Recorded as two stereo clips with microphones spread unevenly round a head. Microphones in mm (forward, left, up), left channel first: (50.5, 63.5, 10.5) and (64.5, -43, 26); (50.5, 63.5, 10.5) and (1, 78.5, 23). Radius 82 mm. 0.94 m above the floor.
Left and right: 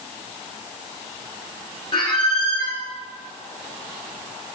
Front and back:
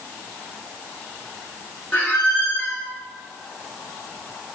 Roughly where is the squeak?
Ahead left.